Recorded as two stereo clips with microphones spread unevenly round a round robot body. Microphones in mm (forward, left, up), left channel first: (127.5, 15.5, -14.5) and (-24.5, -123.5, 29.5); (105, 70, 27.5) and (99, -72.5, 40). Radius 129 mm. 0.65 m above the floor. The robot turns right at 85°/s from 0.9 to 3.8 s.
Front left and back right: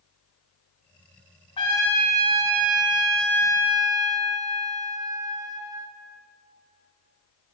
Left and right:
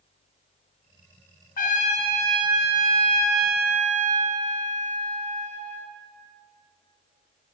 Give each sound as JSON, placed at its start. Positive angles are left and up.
{"t": 1.6, "sound": "a trumpet", "azimuth_deg": 110, "distance_m": 2.0}